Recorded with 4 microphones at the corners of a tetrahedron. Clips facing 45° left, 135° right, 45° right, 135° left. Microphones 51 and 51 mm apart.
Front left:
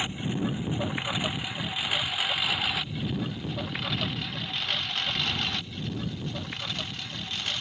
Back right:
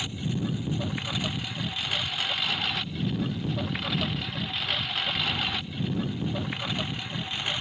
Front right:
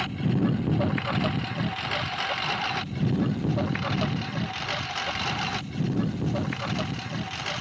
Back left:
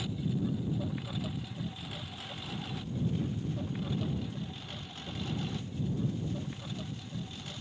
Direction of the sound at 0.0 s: 20° right.